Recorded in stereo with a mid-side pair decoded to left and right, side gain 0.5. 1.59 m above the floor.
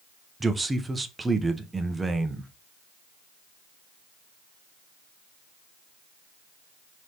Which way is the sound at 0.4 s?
20° right.